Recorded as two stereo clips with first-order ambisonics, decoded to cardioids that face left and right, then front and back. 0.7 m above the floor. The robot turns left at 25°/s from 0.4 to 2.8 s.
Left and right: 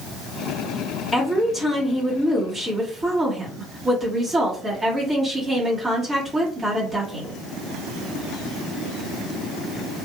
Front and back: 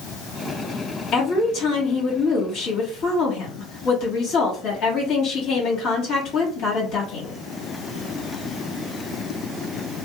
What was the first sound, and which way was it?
A woman speaking, 15° left.